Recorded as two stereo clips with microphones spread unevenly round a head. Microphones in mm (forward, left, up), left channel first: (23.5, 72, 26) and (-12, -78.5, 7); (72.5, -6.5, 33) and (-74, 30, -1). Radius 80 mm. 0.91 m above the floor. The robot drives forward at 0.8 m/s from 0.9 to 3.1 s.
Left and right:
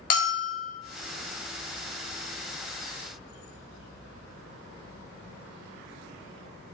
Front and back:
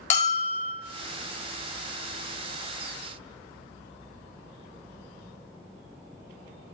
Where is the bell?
35° left, 1.8 m.